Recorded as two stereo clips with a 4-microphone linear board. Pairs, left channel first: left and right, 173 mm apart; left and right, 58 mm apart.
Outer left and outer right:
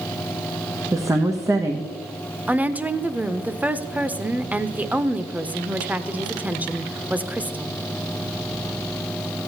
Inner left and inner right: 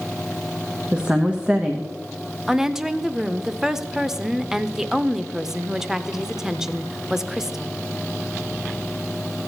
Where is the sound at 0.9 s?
20° right (ahead or behind), 0.6 m.